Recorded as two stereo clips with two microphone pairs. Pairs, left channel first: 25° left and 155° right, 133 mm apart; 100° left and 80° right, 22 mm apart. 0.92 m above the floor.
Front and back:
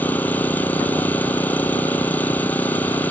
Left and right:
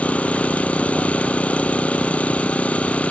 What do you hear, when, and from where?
0.0 s an engine running: 105° left